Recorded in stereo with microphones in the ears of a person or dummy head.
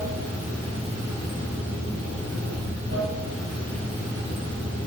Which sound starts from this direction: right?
Running water, at 0.0 s.